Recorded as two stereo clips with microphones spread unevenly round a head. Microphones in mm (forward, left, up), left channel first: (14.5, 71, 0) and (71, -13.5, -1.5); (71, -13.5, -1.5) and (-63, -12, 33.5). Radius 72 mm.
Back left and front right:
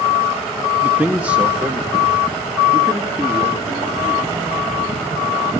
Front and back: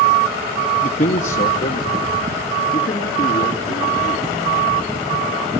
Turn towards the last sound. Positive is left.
turn(degrees=30)